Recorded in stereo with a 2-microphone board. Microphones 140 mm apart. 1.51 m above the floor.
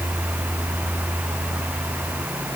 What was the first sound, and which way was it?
Only background noise.